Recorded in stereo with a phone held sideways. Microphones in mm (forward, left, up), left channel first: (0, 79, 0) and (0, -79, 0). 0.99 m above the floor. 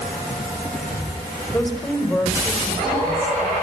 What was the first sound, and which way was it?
A woman speaking, 10° left (ahead or behind).